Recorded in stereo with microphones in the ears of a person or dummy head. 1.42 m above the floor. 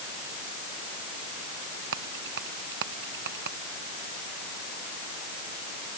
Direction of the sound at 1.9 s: 65° right (ahead or behind).